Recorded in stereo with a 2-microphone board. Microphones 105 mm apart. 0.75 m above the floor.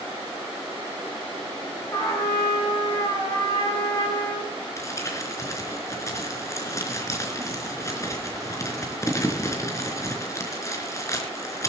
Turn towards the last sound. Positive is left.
turn(degrees=30)  # may be behind; listen again after turning